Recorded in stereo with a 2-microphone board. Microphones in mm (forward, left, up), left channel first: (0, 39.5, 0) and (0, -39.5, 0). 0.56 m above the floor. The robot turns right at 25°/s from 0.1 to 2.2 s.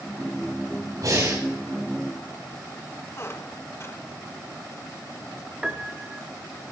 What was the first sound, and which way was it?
Breathing, 55° right (ahead or behind).